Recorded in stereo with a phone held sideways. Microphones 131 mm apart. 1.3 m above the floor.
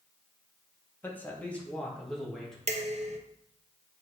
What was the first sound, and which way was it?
A man speaking, 15° left (ahead or behind).